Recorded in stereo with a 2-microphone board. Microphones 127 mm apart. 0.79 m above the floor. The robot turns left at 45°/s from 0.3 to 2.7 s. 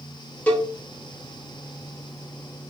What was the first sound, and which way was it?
A cowbell, 10° left (ahead or behind).